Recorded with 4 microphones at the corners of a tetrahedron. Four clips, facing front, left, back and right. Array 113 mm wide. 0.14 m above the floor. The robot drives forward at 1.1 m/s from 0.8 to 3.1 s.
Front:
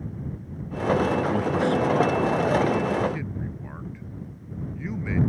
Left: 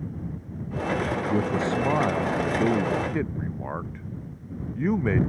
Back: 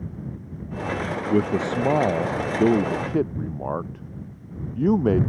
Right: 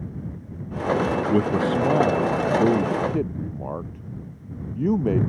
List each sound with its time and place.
1.3 s a man speaking: 145° right; by 5.2 s 165° right